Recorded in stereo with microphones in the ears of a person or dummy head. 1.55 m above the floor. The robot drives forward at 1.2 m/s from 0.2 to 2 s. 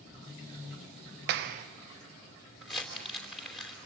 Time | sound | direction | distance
1.3 | a clap | 45° right (ahead or behind) | 0.7 m
2.6 | crumpling | centre (ahead or behind) | 3.5 m